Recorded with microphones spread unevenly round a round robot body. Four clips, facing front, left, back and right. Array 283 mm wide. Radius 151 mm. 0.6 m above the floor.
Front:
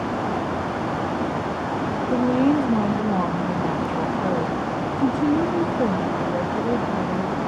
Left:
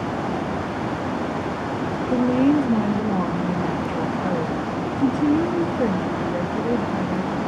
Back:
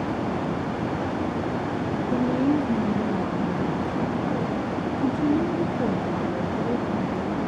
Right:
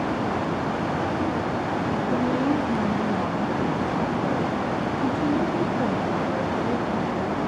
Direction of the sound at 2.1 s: 60° left.